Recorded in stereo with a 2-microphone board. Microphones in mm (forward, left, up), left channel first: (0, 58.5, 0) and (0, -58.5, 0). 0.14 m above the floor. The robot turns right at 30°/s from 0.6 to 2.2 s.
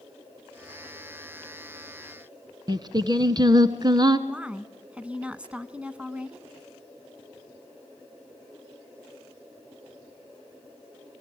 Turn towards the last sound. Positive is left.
turn(degrees=-10)  # may be behind; listen again after turning